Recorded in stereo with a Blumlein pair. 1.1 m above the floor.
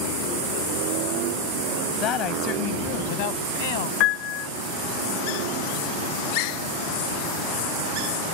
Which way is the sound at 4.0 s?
40° left.